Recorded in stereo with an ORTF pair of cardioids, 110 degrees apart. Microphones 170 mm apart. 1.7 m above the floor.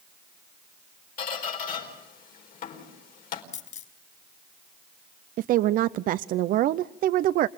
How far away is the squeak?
About 4.5 m.